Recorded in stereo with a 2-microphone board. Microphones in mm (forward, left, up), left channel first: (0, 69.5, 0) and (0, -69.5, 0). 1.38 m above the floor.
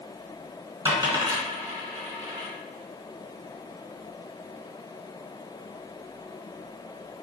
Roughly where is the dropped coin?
Right.